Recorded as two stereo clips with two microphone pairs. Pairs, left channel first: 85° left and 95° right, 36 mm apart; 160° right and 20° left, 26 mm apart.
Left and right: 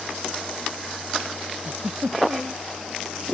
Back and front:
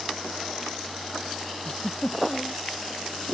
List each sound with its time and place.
1.6 s a giggle: 130° right